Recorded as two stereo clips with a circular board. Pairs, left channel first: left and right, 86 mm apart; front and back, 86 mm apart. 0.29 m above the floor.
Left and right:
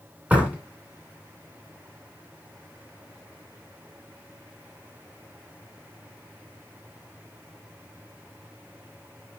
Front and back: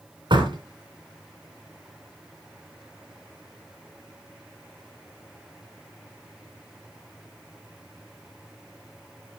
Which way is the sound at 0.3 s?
165° right.